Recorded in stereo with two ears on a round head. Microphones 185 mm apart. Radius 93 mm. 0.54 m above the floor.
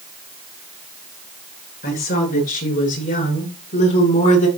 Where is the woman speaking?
45° left (ahead or behind), 7 m; by 4.5 s 35° left (ahead or behind), 5 m.